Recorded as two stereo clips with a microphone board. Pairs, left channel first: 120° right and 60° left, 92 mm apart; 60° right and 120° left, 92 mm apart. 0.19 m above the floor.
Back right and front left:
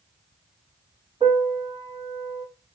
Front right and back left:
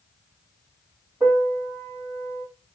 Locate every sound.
1.2 s a piano: 50° left, 3.5 m